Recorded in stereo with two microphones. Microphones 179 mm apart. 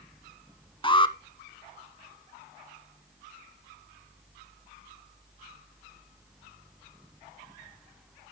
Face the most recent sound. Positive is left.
turn(degrees=30)  # may be behind; listen again after turning